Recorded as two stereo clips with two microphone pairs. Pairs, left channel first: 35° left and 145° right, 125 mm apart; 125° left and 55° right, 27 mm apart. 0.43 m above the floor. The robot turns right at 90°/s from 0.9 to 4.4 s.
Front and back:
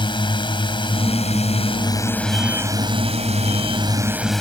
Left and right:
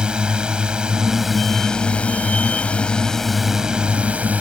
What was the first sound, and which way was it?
A drone, 10° right.